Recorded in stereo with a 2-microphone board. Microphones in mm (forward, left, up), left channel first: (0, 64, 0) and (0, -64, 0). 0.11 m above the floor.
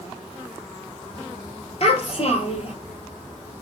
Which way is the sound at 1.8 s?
55° left (ahead or behind).